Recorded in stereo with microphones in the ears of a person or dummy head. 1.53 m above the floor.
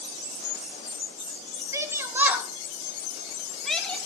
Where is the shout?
20° right (ahead or behind), 1.8 m; by 4.0 s centre (ahead or behind), 3 m.